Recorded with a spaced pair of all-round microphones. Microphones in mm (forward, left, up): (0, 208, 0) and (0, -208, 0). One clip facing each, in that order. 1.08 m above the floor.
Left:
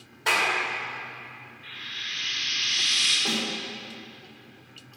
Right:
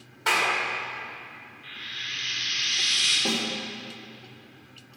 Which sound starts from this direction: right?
A snare drum, at 3.2 s.